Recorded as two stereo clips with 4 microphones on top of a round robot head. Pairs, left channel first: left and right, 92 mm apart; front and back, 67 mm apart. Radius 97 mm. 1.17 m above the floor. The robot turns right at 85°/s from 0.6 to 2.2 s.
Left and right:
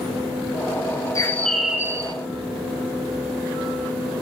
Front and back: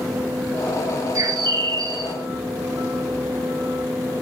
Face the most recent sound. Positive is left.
turn(degrees=-130)